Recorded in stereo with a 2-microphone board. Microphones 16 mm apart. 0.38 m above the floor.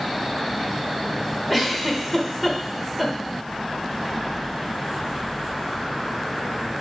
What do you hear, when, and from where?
1.5 s a giggle: 10° right (ahead or behind), 0.8 m